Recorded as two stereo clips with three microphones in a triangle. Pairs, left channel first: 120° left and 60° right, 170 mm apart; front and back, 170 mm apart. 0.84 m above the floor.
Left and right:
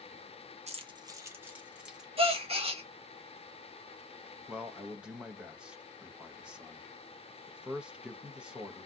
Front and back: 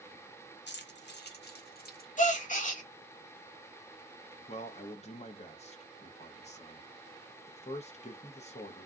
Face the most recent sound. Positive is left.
turn(degrees=20)